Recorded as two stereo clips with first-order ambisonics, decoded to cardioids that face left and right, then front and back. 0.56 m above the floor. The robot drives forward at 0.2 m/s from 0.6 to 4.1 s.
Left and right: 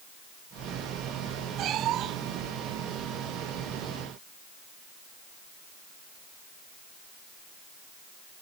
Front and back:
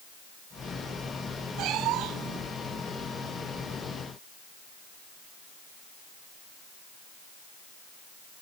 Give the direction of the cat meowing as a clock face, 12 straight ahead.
5 o'clock.